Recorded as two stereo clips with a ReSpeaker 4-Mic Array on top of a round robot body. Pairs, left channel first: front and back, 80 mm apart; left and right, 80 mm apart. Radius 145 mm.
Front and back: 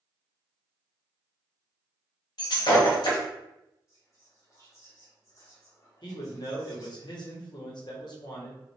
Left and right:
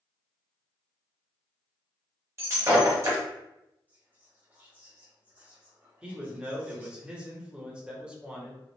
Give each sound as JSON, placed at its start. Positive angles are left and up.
{"t": 2.4, "sound": "breaking glass", "azimuth_deg": -35, "distance_m": 1.0}
{"t": 3.9, "sound": "whispering", "azimuth_deg": -30, "distance_m": 1.4}
{"t": 6.0, "sound": "a man speaking", "azimuth_deg": -15, "distance_m": 1.3}